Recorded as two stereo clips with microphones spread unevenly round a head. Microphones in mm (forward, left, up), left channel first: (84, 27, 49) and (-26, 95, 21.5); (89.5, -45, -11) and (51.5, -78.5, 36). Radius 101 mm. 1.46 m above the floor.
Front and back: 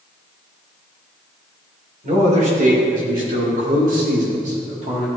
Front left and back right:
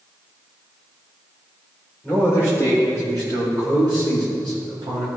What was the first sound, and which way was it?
A man speaking, 125° left.